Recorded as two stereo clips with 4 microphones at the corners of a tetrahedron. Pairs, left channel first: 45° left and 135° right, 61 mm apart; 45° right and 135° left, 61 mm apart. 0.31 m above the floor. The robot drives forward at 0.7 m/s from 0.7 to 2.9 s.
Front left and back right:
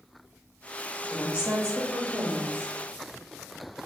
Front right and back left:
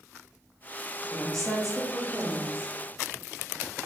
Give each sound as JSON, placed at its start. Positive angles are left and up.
{"t": 1.1, "sound": "a woman speaking", "azimuth_deg": -115, "distance_m": 1.4}